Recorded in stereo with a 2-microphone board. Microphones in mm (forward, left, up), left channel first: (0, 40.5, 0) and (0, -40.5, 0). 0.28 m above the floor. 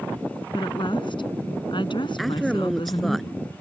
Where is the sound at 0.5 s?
65° left (ahead or behind).